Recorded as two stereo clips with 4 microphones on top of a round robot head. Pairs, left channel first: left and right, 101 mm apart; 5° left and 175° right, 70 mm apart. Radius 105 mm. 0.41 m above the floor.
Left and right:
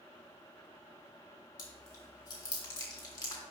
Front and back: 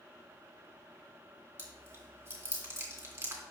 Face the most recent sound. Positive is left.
turn(degrees=130)